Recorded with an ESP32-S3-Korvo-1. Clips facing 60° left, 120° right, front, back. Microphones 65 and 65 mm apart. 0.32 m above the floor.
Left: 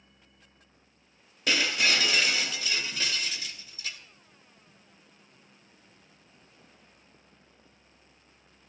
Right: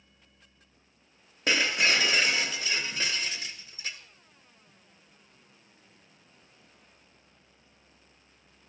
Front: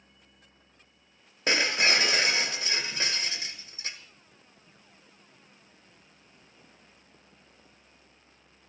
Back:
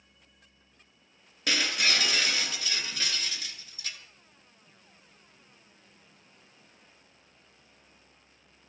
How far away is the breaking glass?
About 1.7 m.